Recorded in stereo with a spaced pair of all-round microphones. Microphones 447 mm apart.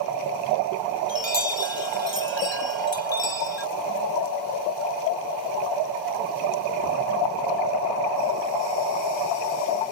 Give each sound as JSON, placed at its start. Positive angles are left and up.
{"t": 1.1, "sound": "a chime", "side_deg": 70}